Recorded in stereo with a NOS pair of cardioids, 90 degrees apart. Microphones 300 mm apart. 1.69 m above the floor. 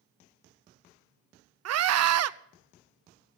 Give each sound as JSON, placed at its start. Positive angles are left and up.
{"t": 1.6, "sound": "a scream", "azimuth_deg": -55, "distance_m": 0.8}